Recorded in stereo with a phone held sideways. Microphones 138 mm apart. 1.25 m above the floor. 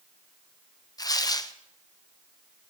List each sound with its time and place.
1.0 s tearing paper: 25° left (ahead or behind), 0.8 m